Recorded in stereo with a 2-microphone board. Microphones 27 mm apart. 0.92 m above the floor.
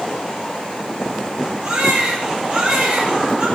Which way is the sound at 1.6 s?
50° right (ahead or behind).